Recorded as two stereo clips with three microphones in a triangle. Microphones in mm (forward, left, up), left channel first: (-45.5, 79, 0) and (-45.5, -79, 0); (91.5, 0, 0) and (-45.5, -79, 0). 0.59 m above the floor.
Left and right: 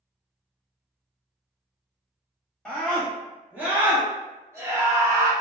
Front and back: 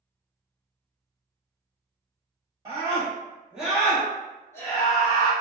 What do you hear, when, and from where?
2.6 s a scream: straight behind, 1.0 m; by 5.3 s 25° right, 1.3 m